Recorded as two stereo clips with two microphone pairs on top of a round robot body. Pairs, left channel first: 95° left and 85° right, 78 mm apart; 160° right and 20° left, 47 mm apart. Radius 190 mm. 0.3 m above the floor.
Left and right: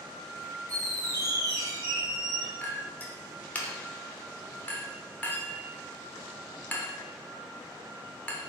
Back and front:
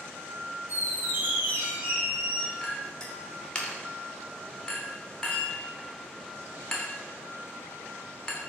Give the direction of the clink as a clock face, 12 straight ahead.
7 o'clock.